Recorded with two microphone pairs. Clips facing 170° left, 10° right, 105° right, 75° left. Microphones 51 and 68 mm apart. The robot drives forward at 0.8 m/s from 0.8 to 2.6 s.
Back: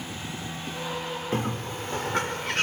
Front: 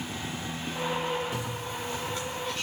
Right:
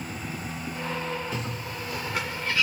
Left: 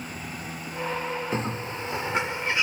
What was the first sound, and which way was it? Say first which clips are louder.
A bird: back 4 dB, left 4 dB; 130° left.